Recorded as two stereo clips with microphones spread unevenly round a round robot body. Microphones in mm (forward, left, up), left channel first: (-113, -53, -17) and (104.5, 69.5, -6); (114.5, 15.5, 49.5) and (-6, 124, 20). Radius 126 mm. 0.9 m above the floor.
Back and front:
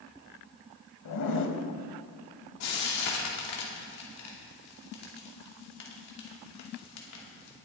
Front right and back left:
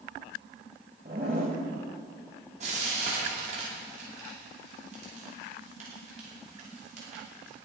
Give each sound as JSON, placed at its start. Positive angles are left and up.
{"t": 1.1, "sound": "a zipper", "azimuth_deg": -160, "distance_m": 1.3}
{"t": 2.6, "sound": "frying", "azimuth_deg": -170, "distance_m": 2.5}